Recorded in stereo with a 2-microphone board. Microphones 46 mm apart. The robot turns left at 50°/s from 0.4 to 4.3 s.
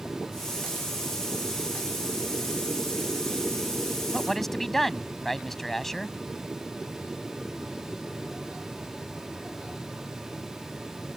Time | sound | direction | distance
4.1 | a man speaking | 10° left (ahead or behind) | ?